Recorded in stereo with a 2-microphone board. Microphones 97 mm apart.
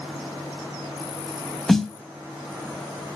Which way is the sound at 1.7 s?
5° left (ahead or behind).